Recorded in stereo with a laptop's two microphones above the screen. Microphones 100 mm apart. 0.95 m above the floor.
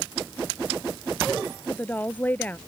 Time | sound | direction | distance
1.7 | a woman speaking | 15° left (ahead or behind) | ?